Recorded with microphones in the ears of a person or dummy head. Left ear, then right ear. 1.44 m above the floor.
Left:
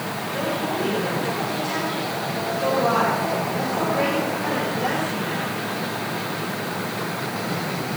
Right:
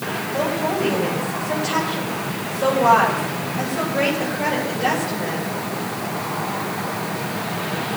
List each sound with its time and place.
0.3 s a woman speaking: 15° right (ahead or behind), 7 m